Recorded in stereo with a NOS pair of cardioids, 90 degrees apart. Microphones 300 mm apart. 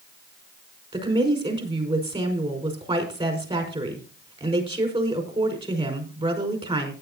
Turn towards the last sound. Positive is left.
turn(degrees=-20)